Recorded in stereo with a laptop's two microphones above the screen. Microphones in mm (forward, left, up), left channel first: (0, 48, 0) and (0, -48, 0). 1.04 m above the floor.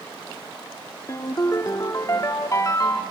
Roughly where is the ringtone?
Left.